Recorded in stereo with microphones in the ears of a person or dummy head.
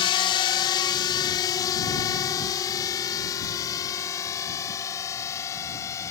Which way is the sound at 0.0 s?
30° left (ahead or behind).